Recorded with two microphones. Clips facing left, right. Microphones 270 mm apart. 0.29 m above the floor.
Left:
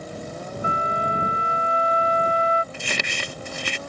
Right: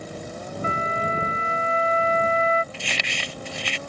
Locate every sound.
0.6 s a flute: 15° left (ahead or behind)
2.7 s crumpling: 55° left (ahead or behind)